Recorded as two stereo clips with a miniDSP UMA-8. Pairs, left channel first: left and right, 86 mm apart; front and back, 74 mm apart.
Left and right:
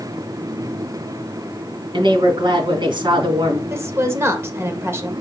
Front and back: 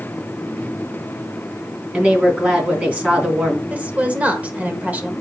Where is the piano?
I don't hear a piano.